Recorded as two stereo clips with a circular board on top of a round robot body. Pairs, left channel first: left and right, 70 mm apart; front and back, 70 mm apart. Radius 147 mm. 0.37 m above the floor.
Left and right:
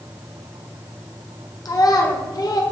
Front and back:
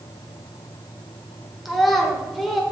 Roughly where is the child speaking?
Left.